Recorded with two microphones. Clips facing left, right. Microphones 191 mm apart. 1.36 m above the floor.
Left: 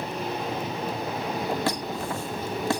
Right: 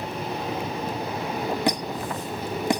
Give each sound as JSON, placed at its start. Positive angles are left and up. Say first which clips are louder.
{"t": 1.7, "sound": "a squeak", "louder": "right 2 dB", "side_deg": -15, "distance_m": 0.8}